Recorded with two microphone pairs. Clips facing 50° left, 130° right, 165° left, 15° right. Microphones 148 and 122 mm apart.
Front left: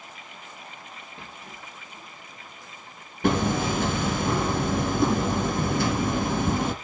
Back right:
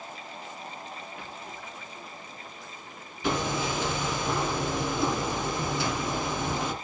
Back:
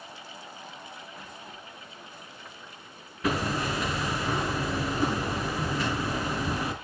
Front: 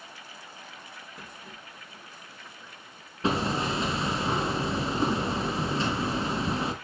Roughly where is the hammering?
Ahead left.